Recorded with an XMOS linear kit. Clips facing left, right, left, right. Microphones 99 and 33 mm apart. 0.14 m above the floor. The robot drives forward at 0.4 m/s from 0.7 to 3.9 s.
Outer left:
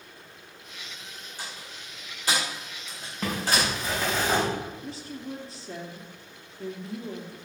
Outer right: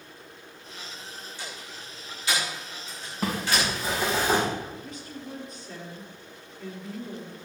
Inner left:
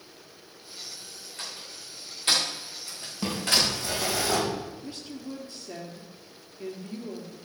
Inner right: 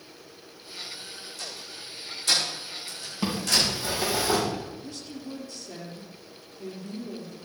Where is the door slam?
45° left (ahead or behind), 6.5 m; by 3.7 s 40° left (ahead or behind), 7 m.